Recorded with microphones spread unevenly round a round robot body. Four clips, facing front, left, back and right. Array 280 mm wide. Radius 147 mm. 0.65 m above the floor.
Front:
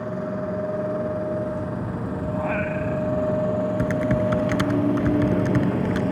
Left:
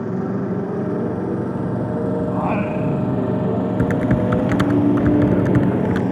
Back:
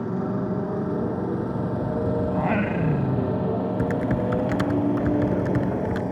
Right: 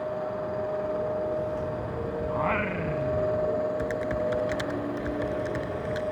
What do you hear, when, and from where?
0.0 s a motorcycle: 115° left; by 6.1 s 75° left
2.3 s singing: 150° left
3.8 s typing on a keyboard: 85° left